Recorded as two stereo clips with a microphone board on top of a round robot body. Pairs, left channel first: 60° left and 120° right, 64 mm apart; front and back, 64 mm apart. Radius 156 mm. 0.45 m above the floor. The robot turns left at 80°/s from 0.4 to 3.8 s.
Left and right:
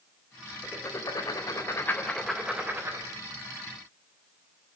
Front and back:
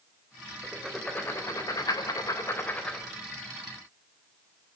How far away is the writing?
About 3.5 m.